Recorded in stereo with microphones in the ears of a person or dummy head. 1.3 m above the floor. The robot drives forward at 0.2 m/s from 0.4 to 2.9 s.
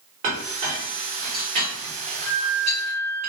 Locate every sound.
0.2 s a clink: 50° right (ahead or behind), 1.5 m; by 3.2 s 40° right (ahead or behind), 1.9 m
2.2 s a flute: 15° left (ahead or behind), 0.8 m